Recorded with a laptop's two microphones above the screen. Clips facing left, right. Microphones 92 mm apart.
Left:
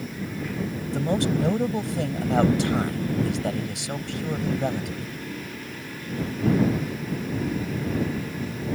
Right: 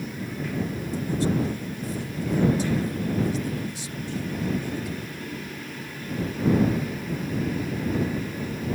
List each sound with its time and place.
0.9 s a man speaking: 75° left (ahead or behind)